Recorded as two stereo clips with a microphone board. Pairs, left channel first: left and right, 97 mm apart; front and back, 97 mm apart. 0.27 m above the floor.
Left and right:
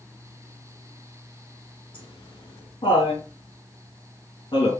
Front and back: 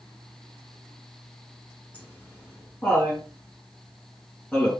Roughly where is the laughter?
Left.